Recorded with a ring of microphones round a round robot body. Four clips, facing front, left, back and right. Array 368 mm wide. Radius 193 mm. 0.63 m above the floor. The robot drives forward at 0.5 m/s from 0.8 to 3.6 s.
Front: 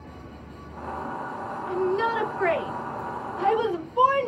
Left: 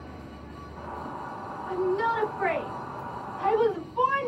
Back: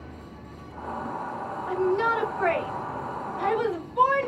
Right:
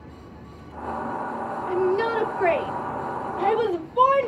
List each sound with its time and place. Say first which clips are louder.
1.7 s a shout: right 3 dB, back 1 dB; 55° right, 4 m; by 4.3 s 65° right, 3.5 m